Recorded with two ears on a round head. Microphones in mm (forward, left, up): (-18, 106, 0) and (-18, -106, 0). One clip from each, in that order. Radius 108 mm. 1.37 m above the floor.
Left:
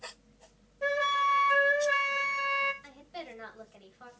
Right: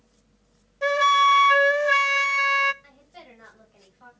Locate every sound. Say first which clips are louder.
0.8 s a flute: right 9 dB; 40° right (ahead or behind), 0.5 m
2.8 s a woman speaking: left 4 dB; 35° left (ahead or behind), 7 m